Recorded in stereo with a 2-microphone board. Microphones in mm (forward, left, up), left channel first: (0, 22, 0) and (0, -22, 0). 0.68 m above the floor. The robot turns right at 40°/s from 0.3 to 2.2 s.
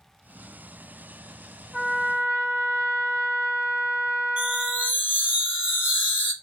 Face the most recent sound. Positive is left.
turn(degrees=-40)  # may be behind; listen again after turning